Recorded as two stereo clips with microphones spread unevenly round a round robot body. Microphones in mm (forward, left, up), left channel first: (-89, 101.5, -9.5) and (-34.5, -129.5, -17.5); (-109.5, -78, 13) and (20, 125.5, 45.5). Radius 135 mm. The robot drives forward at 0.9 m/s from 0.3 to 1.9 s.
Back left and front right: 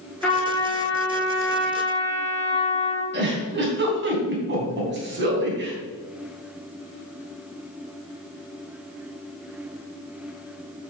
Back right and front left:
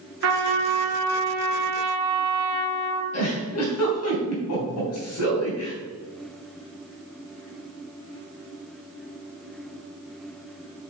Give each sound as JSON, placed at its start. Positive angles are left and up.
{"t": 0.2, "sound": "a trumpet", "azimuth_deg": 15, "distance_m": 2.5}
{"t": 3.1, "sound": "a giggle", "azimuth_deg": -115, "distance_m": 3.0}